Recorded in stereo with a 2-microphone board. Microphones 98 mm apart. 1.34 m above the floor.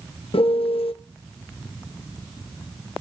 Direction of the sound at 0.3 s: 70° left (ahead or behind).